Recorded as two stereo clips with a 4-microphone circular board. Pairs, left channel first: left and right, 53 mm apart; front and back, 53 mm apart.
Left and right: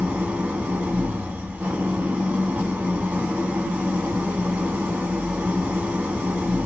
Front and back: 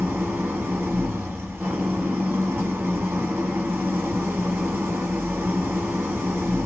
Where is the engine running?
140° right, 1.1 m.